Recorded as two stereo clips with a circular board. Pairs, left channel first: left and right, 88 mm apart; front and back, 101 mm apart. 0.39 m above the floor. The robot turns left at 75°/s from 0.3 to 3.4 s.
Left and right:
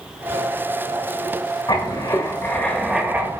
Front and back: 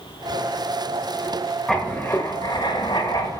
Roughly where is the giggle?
No giggle in this recording.